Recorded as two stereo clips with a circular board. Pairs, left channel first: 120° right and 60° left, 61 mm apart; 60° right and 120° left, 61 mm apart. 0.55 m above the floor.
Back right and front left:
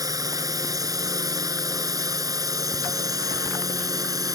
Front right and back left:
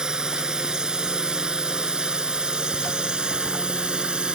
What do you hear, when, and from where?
0.0 s a drone: 45° left